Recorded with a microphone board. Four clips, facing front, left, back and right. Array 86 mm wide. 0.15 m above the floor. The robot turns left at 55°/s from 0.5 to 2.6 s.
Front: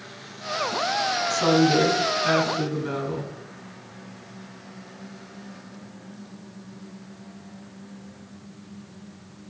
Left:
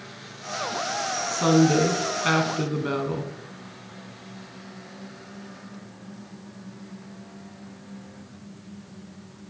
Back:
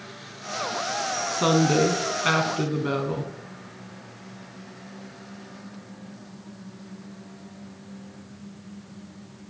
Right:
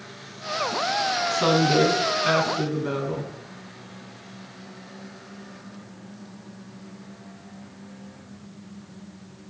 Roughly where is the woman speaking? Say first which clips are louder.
Left 2 dB, front 1 dB; behind right.